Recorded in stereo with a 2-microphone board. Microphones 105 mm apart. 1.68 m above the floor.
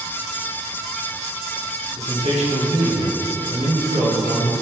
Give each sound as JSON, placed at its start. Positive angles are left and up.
{"t": 2.0, "sound": "a man speaking", "side_deg": -80, "distance_m": 1.3}